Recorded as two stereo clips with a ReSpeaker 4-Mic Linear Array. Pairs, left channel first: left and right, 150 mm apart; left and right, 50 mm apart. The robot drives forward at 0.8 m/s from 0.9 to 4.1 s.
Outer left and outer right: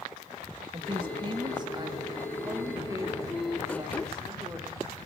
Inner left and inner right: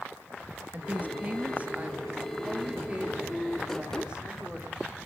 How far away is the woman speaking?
About 2.5 m.